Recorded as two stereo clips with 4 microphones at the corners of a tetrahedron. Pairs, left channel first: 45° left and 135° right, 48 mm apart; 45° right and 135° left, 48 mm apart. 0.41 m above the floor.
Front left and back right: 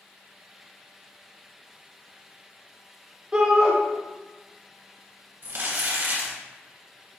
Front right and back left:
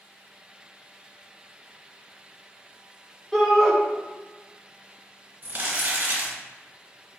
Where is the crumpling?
175° right, 1.1 m.